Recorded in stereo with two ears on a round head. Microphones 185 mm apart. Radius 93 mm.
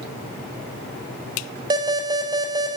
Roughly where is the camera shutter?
I don't hear a camera shutter.